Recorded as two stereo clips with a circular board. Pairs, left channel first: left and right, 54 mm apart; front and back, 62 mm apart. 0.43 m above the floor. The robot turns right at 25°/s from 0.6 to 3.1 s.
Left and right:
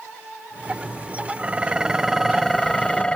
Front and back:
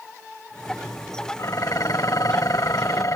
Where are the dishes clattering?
25° right; by 3.2 s 20° left.